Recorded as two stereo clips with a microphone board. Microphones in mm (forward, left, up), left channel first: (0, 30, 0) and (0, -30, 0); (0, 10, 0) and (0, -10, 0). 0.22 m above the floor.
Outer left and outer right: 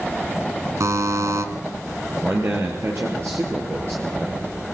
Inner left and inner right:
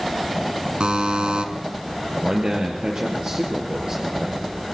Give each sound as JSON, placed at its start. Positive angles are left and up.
{"t": 0.8, "sound": "a buzzer", "side_deg": -60, "distance_m": 2.5}
{"t": 2.2, "sound": "a man speaking", "side_deg": -45, "distance_m": 4.5}